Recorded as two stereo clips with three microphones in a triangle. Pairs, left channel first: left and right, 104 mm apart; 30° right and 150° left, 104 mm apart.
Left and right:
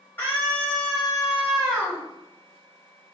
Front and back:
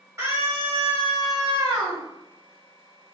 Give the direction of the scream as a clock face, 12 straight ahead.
8 o'clock.